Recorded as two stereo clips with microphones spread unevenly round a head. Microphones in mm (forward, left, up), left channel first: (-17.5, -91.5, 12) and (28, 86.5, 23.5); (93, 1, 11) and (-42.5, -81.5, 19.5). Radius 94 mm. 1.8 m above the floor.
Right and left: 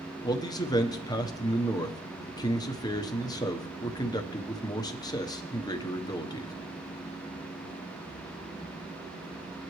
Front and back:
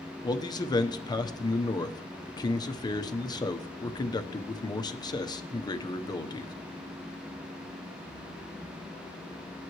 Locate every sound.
0.2 s a man speaking: 35° right, 1.1 m